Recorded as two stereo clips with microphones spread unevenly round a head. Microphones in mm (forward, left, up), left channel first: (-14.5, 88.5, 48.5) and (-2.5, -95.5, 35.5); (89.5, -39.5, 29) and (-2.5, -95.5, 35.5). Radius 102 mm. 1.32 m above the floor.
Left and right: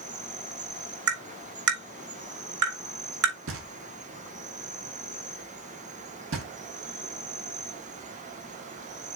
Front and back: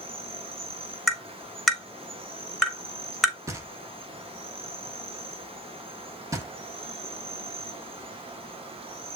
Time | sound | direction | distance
0.0 | an insect | 125° right | 1.9 m
1.1 | tapping | 60° right | 4 m
3.5 | knocking | 90° right | 2.5 m